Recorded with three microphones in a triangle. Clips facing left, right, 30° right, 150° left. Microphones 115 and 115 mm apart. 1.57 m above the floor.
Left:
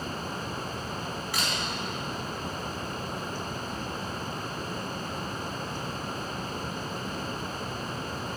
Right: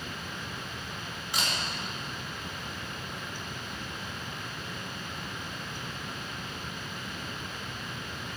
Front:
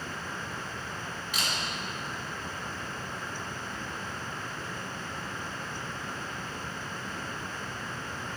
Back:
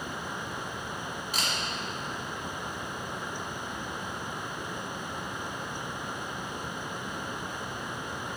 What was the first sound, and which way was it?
A camera shutter, 155° right.